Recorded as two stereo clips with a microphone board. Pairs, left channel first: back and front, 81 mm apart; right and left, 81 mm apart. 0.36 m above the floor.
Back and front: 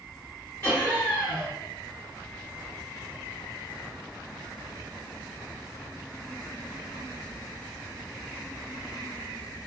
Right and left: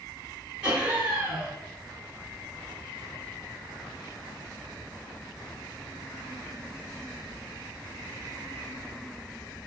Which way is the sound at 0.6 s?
155° left.